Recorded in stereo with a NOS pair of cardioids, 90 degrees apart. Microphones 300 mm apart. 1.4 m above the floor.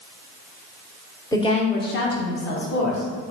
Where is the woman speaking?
10° left, 0.8 m; by 3.1 s 75° left, 1.3 m.